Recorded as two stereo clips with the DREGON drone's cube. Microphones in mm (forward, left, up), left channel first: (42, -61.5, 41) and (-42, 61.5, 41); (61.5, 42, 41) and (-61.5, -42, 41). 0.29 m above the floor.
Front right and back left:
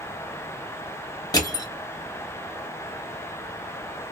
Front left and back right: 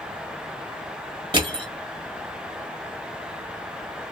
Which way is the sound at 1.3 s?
110° right.